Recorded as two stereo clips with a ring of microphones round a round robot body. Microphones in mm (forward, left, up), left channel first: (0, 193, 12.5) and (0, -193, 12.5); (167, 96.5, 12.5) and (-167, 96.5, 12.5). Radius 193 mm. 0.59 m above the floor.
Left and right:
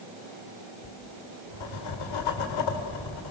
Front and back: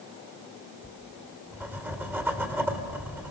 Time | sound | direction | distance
0.8 | writing | 95° left | 2.5 m